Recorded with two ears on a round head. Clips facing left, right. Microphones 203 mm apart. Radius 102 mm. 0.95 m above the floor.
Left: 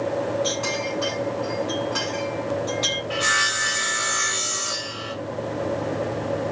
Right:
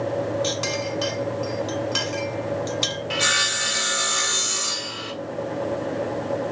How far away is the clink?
About 3 m.